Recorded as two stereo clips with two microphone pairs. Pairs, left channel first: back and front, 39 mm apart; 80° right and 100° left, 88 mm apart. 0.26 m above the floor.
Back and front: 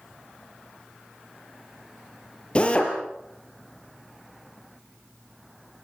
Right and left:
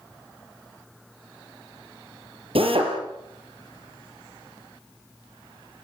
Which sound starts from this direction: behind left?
A drill, at 2.5 s.